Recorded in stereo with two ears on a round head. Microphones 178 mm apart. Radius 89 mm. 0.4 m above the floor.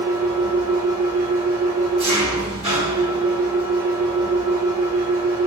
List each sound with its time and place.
0.0 s an engine running: 30° right (ahead or behind), 2.5 m